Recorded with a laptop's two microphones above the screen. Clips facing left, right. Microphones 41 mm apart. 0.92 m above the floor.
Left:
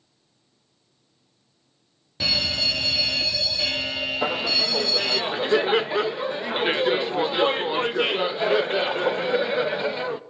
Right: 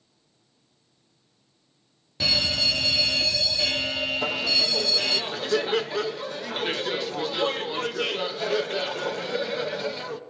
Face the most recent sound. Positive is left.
turn(degrees=25)  # may be behind; listen again after turning